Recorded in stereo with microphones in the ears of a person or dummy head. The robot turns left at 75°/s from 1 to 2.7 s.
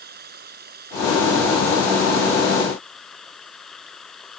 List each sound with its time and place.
0.0 s running water: 55° right; by 4.4 s 175° left